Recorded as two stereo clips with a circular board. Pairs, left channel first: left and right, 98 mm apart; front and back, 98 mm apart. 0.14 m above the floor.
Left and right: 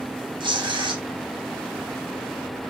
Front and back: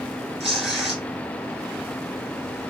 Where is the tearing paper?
90° right, 1.3 m.